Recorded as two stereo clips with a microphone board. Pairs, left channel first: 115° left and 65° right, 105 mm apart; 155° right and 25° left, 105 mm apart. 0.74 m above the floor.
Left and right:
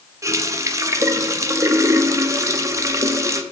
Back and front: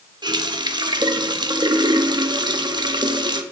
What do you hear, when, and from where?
0.2 s a running tap: 10° right, 0.6 m